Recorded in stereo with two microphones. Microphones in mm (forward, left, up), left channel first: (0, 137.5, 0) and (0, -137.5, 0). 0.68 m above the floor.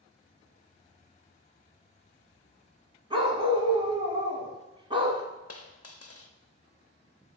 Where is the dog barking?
20° right (ahead or behind), 1.3 m.